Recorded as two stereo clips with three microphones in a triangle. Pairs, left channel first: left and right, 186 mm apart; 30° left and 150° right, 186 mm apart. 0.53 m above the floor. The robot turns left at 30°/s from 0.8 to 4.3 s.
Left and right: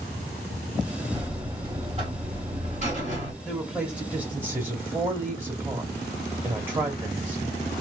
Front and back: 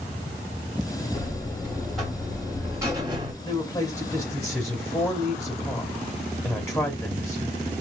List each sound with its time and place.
1.1 s a buzzer: 35° right, 1.3 m; by 3.3 s 100° right, 1.3 m
3.4 s a woman speaking: straight ahead, 1.0 m; by 7.7 s 25° right, 1.0 m